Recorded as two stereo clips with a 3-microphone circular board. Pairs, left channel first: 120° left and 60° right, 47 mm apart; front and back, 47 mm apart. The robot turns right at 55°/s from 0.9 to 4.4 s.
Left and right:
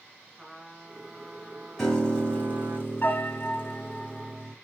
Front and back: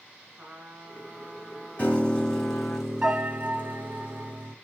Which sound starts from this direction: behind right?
A trumpet, at 0.4 s.